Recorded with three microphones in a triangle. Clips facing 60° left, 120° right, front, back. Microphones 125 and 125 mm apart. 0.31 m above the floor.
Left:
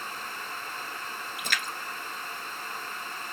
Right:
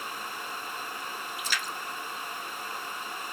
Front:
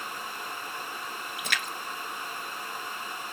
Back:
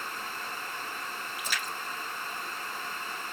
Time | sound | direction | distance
1.4 | a splash | 25° left | 1.0 m